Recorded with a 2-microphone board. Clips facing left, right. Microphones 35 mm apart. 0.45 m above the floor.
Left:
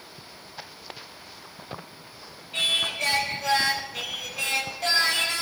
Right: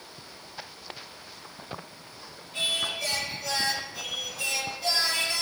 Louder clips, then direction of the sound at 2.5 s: Left 4 dB; 70° left (ahead or behind).